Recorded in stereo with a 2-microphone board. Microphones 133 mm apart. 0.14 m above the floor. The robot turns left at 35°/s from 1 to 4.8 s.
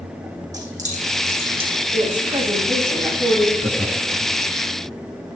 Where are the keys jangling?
65° right (ahead or behind), 5.5 m; by 1.8 s 35° right (ahead or behind), 5.5 m.